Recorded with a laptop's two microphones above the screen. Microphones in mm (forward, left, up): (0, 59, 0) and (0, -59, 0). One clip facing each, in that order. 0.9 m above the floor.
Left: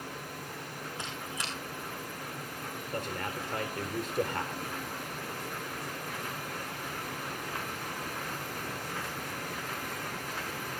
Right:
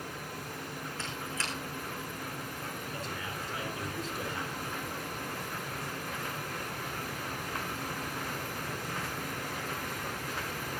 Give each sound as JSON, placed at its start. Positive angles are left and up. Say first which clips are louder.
{"t": 1.0, "sound": "a squeak", "louder": "right 1 dB", "side_deg": 15, "distance_m": 7.5}
{"t": 2.9, "sound": "a man speaking", "louder": "left 3 dB", "side_deg": 60, "distance_m": 4.0}